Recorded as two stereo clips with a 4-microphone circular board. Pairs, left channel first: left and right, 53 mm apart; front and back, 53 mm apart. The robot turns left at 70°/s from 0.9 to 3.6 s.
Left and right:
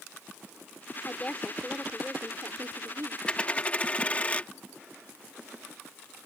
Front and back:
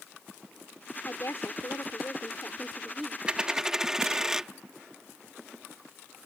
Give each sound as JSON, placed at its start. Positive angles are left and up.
{"t": 1.1, "sound": "a woman speaking", "azimuth_deg": 45}
{"t": 3.3, "sound": "a dropped coin", "azimuth_deg": 140}